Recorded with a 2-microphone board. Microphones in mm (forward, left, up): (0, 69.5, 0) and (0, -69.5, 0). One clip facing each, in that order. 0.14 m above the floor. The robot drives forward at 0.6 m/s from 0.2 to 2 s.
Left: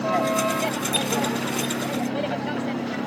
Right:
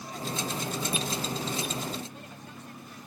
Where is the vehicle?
85° left; by 3.1 s 80° left.